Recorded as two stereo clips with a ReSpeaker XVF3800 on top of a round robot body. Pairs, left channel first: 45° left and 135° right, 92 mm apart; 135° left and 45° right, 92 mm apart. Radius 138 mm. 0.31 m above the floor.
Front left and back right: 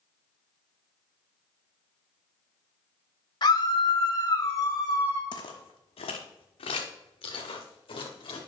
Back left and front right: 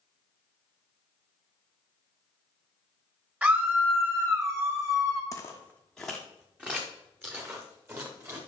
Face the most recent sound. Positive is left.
turn(degrees=15)